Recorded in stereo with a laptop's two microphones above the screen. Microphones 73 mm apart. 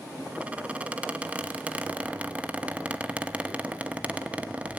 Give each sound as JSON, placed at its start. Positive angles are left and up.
{"t": 0.3, "sound": "a squeak", "side_deg": -15, "distance_m": 0.9}